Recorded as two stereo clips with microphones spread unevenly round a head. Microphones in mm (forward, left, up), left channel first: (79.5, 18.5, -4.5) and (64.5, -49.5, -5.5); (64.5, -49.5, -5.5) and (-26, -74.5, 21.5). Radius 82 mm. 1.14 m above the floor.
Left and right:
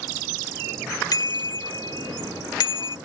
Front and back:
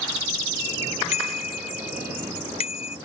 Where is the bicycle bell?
50° left; by 3.0 s 70° left.